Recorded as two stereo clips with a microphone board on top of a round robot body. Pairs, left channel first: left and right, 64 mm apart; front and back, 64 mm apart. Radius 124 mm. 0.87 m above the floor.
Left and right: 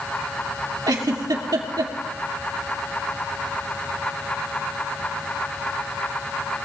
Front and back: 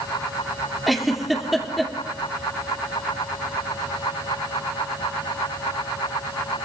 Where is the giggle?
90° right, 2 m.